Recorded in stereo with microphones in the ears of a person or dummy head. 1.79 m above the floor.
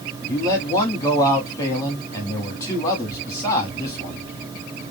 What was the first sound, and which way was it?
A man speaking, 15° left (ahead or behind).